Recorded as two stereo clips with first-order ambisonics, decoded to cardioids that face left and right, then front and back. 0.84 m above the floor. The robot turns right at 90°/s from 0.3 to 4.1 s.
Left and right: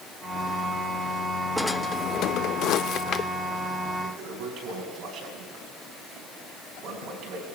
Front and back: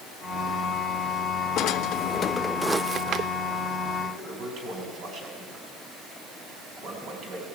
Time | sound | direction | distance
1.6 | a drawer | 5° right | 0.5 m
4.0 | a toilet flushing | 145° right | 5.5 m